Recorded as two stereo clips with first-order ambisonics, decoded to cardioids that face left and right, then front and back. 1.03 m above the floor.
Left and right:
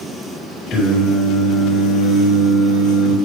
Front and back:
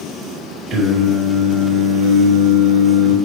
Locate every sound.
0.7 s singing: 140° left, 4 m